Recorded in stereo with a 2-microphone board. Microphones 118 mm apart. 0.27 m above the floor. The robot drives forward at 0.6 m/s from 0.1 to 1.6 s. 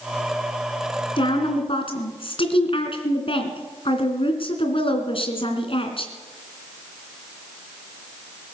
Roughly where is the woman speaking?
Left.